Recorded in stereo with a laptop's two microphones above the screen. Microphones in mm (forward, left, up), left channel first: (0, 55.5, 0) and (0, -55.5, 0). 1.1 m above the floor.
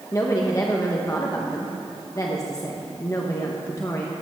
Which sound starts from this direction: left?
A woman speaking, at 0.1 s.